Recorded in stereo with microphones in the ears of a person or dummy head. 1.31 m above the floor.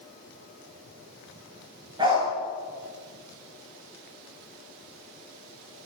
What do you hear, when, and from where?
2.0 s a dog barking: 25° right (ahead or behind), 7.5 m